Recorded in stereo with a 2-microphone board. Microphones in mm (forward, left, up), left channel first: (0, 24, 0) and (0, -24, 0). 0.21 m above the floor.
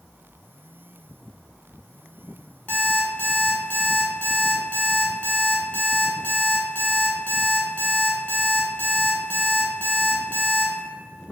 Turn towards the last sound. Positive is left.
turn(degrees=40)  # may be behind; listen again after turning